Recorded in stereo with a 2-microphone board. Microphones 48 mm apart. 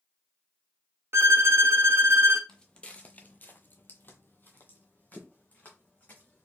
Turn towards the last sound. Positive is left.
turn(degrees=30)  # may be behind; listen again after turning